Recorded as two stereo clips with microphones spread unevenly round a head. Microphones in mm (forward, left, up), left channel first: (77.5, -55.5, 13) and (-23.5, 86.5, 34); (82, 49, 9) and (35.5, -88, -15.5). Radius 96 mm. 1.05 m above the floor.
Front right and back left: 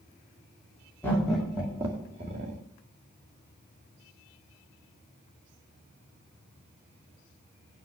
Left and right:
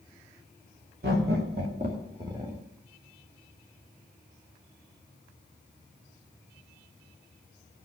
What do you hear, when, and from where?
1.0 s laughter: 135° right, 2.5 m; by 2.6 s 175° left, 2.5 m